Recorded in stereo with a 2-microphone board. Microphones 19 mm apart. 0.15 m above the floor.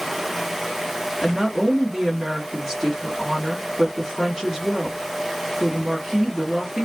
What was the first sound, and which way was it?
A woman speaking, 10° right (ahead or behind).